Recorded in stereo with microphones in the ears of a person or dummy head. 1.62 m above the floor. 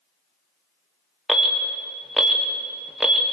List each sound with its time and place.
1.3 s an alarm: 10° right (ahead or behind), 1.4 m